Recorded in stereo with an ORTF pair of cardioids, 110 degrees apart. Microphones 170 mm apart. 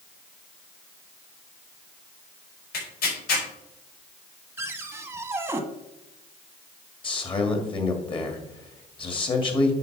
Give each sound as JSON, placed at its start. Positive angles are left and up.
{"t": 2.7, "sound": "tearing paper", "azimuth_deg": 65, "distance_m": 4.5}
{"t": 4.6, "sound": "a cupboard door", "azimuth_deg": -15, "distance_m": 1.1}
{"t": 7.0, "sound": "a man speaking", "azimuth_deg": 30, "distance_m": 2.0}